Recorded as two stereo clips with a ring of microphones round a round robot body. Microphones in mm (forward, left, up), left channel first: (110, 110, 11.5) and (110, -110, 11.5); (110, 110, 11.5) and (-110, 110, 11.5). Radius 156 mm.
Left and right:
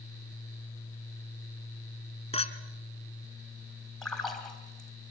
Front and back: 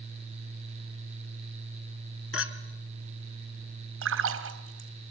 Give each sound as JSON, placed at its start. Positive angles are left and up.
{"t": 2.3, "sound": "a clink", "azimuth_deg": 25, "distance_m": 2.5}
{"t": 4.0, "sound": "a splash", "azimuth_deg": 180, "distance_m": 2.5}